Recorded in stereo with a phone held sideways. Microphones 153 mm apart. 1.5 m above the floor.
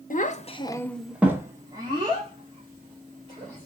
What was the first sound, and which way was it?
A child speaking, 60° left (ahead or behind).